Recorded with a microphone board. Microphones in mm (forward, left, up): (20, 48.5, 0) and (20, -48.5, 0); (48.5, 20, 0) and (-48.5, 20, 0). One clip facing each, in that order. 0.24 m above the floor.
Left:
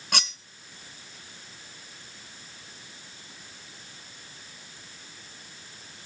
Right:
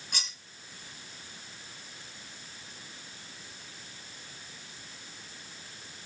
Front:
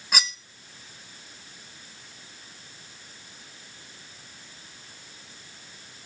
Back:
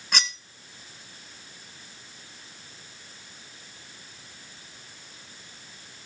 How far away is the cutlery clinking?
About 1.6 m.